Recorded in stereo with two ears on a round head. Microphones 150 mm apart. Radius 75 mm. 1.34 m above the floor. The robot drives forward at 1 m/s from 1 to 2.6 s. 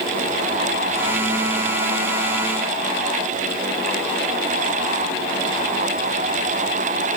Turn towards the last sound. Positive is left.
No sound to turn to.